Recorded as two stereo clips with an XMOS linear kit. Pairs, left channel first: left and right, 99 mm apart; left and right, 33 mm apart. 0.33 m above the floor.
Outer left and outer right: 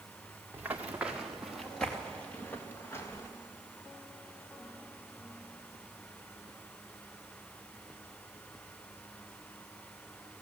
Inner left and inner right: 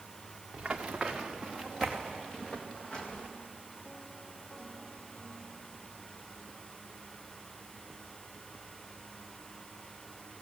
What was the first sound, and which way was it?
Running footsteps, 20° right (ahead or behind).